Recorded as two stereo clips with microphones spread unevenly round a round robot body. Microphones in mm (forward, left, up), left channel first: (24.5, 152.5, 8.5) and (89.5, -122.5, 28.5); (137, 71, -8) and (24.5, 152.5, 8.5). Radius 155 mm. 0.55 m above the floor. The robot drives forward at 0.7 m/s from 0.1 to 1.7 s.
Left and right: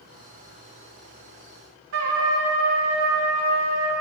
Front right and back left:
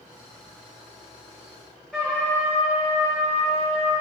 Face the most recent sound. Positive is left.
turn(degrees=-125)